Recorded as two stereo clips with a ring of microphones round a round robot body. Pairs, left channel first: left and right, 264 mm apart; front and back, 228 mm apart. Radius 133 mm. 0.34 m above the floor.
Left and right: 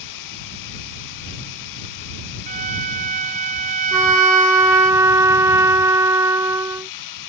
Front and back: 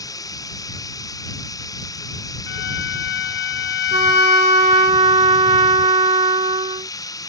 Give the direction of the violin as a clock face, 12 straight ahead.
1 o'clock.